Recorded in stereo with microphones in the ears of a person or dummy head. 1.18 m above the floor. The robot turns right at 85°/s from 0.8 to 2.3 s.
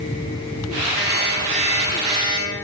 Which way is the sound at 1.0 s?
155° right.